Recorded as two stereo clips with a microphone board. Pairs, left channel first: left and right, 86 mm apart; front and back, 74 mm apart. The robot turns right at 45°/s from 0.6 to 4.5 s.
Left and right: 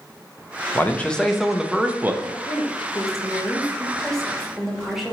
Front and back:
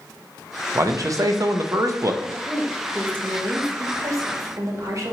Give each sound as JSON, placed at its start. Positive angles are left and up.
{"t": 0.8, "sound": "a man speaking", "azimuth_deg": 150, "distance_m": 0.5}
{"t": 2.2, "sound": "a woman speaking", "azimuth_deg": 85, "distance_m": 1.1}